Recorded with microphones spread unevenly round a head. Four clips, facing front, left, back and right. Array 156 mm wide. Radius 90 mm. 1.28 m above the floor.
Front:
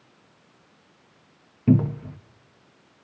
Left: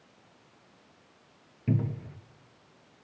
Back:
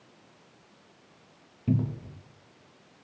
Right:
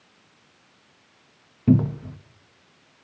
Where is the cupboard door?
45° right, 1.1 m.